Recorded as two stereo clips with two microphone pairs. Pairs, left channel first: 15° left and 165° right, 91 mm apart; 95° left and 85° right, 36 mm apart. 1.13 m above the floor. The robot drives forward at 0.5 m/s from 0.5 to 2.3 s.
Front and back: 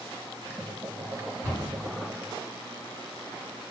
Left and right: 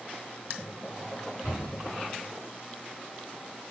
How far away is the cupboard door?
About 1.7 m.